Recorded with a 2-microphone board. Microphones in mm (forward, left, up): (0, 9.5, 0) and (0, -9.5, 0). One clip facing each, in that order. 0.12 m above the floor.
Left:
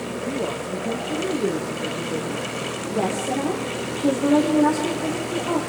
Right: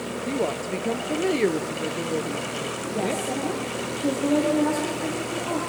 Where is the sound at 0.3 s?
45° right (ahead or behind), 1.9 m; by 3.2 s 55° right (ahead or behind), 2.5 m.